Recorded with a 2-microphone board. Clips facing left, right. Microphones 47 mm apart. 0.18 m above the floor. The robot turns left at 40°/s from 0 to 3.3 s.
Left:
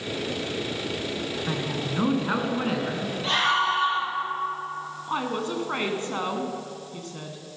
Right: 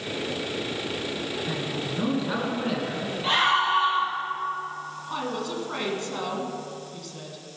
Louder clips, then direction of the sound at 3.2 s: Right 1 dB; 10° right (ahead or behind).